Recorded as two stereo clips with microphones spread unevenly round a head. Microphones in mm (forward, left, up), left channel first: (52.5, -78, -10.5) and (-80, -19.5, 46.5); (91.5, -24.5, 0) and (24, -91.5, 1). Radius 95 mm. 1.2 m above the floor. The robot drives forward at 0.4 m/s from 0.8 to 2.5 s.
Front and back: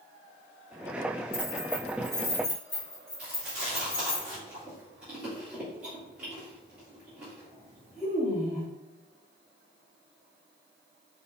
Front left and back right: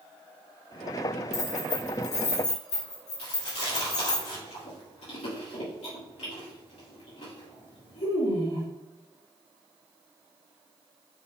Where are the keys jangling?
45° left, 1.9 m; by 4.2 s 55° left, 1.6 m.